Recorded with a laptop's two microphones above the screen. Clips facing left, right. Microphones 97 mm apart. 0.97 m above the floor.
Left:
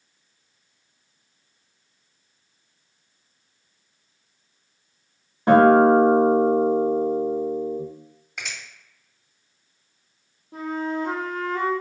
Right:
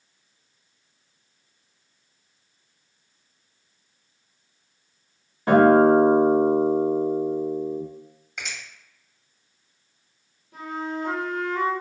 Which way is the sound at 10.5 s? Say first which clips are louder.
Left 4 dB; 35° left (ahead or behind).